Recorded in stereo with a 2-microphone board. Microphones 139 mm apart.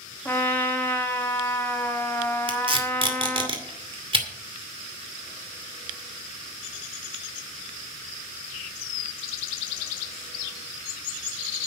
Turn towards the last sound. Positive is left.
turn(degrees=-40)  # may be behind; listen again after turning